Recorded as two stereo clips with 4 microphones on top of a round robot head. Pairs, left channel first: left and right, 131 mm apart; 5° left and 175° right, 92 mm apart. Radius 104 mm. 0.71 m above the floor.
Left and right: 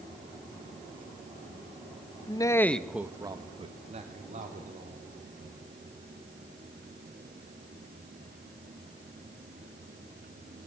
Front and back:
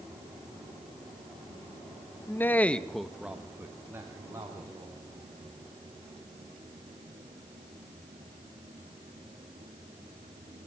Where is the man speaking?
55° left, 1.4 m; by 5.0 s 115° right, 3 m.